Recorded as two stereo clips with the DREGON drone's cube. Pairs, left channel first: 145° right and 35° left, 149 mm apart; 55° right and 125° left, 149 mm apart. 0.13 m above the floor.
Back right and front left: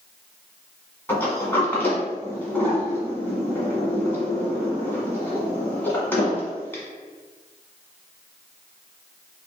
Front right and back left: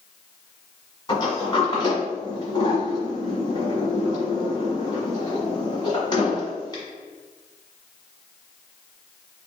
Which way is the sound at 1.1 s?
85° right.